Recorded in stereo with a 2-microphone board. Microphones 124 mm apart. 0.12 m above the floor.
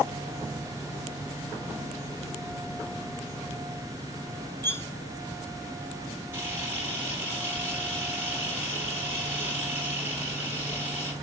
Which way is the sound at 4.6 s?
20° left (ahead or behind).